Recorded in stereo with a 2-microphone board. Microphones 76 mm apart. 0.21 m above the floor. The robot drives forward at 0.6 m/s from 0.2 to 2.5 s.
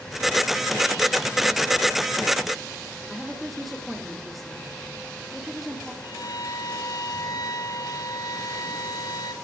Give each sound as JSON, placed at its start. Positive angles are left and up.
{"t": 3.1, "sound": "a woman speaking", "side_deg": 0, "distance_m": 4.0}
{"t": 6.0, "sound": "a violin", "side_deg": 65, "distance_m": 3.0}